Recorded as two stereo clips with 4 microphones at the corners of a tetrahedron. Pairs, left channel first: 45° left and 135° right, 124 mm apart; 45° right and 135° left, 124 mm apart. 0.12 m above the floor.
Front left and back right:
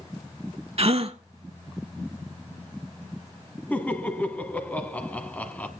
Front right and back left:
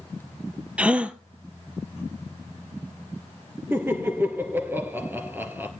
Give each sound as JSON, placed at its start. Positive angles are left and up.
{"t": 0.8, "sound": "a gasp", "azimuth_deg": -150, "distance_m": 0.7}
{"t": 3.7, "sound": "laughter", "azimuth_deg": 100, "distance_m": 1.2}